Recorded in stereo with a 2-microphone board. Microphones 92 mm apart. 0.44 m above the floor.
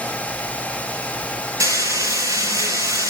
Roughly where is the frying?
Right.